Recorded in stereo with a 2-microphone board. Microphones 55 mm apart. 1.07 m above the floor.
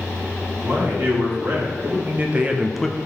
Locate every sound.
0.6 s a man speaking: 45° right (ahead or behind), 2.5 m; by 3.0 s 15° left (ahead or behind), 0.5 m